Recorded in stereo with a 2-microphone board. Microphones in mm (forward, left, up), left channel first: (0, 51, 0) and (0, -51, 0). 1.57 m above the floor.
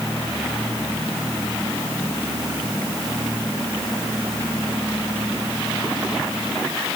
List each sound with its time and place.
Only background noise.